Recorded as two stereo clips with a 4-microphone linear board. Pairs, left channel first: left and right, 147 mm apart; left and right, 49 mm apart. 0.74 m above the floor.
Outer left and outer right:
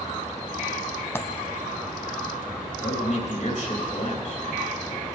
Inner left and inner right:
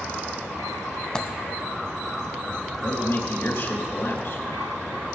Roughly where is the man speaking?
Left.